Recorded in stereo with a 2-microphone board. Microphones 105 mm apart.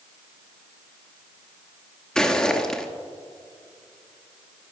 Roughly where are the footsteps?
Centre.